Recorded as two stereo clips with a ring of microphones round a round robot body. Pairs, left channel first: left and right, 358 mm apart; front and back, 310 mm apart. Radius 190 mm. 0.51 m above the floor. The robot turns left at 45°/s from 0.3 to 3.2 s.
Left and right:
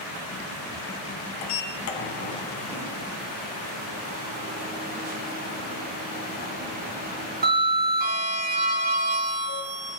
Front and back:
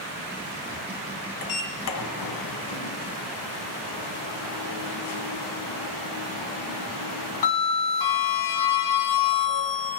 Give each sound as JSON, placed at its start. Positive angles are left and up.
{"t": 1.4, "sound": "a sliding door", "azimuth_deg": 60, "distance_m": 1.4}